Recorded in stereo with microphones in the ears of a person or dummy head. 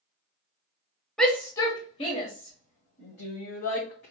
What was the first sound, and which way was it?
A shout, centre (ahead or behind).